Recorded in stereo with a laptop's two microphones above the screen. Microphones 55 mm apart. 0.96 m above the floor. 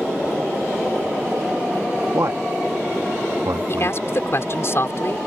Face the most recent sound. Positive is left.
turn(degrees=55)  # may be behind; listen again after turning